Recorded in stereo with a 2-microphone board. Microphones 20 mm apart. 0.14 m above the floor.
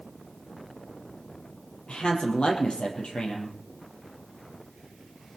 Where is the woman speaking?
70° left (ahead or behind), 5 m.